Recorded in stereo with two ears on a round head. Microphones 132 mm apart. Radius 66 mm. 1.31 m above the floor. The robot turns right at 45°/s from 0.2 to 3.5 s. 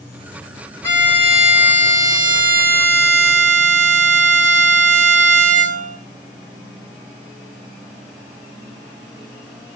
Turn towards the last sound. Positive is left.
turn(degrees=-85)